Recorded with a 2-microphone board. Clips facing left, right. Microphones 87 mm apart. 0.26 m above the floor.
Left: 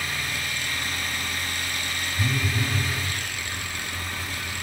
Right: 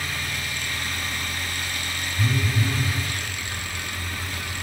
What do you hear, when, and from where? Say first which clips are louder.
2.2 s a phone buzzing: right 2 dB; 15° left (ahead or behind), 2.0 m